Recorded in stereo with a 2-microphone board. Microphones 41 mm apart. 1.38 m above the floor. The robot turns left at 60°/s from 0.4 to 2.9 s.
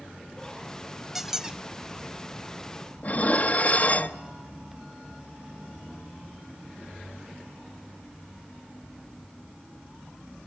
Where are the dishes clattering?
40° left (ahead or behind), 1.2 m.